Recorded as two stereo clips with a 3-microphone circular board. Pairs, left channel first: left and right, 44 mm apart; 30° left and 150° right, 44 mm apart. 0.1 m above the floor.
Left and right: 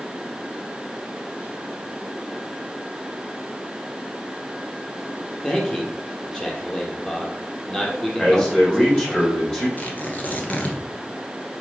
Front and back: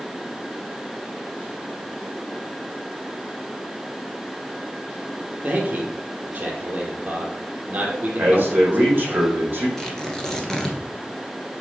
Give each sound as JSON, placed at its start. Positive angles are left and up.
{"t": 5.4, "sound": "a man speaking", "azimuth_deg": 160, "distance_m": 3.0}
{"t": 8.2, "sound": "a man speaking", "azimuth_deg": 160, "distance_m": 4.0}
{"t": 9.8, "sound": "tearing paper", "azimuth_deg": 95, "distance_m": 1.9}